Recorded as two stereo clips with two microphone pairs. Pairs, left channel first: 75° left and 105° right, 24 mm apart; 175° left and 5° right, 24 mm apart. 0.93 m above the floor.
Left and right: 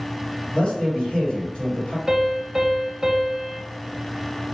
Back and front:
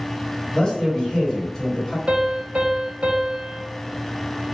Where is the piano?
40° right, 0.8 m.